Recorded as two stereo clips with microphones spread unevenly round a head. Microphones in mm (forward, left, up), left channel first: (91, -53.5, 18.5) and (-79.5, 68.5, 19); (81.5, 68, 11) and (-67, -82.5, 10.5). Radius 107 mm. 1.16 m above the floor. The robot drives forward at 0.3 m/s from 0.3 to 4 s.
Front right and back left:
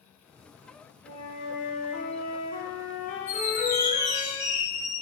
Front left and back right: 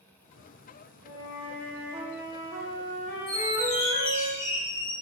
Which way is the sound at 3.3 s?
65° left.